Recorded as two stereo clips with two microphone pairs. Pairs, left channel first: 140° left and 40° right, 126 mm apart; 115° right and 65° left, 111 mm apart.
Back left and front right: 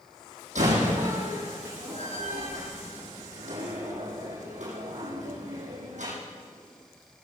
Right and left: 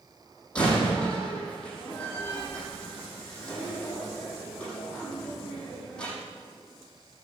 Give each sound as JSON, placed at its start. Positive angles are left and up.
{"t": 0.6, "sound": "a door slam", "azimuth_deg": -35, "distance_m": 7.0}